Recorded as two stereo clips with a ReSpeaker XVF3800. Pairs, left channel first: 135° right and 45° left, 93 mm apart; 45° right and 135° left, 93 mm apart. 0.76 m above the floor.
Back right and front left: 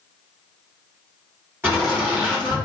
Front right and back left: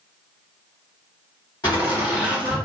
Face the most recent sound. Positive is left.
turn(degrees=-20)